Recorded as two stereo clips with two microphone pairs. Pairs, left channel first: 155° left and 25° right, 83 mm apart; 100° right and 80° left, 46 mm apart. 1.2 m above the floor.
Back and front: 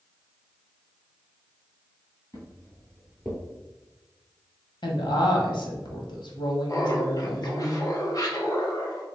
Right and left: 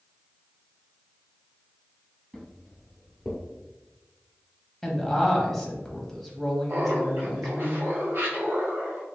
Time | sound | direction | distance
2.3 | footsteps | 170° left | 1.6 m
4.8 | a woman speaking | 175° left | 1.1 m
6.7 | laughter | 115° left | 1.1 m